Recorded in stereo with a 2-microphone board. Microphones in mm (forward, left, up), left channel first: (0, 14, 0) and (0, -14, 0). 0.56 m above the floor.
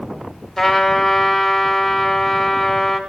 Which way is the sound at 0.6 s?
5° left (ahead or behind).